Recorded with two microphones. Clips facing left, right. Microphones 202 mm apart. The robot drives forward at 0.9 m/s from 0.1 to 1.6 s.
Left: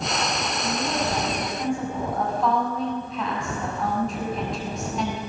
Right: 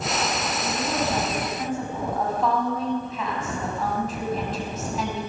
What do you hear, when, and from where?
0.6 s a woman speaking: centre (ahead or behind), 7.5 m